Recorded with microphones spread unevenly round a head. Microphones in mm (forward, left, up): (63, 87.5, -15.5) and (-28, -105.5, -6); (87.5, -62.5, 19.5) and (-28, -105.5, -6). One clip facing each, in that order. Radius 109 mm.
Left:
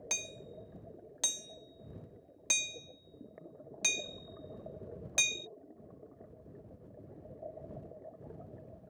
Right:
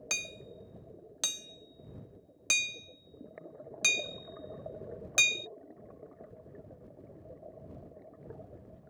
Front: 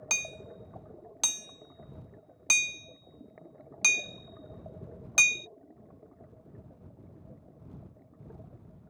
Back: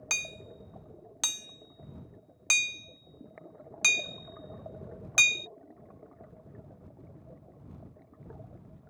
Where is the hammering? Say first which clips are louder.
Even, front 1 dB; 35° right.